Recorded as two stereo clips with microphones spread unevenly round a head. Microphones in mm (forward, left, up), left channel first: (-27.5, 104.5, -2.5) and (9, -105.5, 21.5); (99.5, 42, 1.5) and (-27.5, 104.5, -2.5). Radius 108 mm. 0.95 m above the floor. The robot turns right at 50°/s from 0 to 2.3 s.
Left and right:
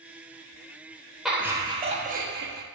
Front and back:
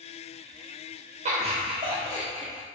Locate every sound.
1.2 s laughter: 175° right, 0.7 m; by 2.6 s 120° right, 0.7 m